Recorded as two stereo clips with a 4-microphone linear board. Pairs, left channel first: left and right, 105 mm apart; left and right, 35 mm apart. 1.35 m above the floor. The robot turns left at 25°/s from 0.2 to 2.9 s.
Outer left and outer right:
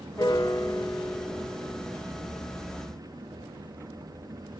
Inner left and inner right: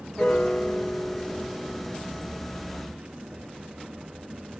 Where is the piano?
60° left, 1.3 m; by 2.0 s 15° left, 1.3 m.